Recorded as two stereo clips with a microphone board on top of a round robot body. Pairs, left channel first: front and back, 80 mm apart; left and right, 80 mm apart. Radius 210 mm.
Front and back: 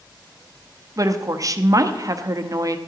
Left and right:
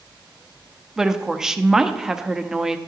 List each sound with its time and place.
1.0 s a woman speaking: 170° right, 1.0 m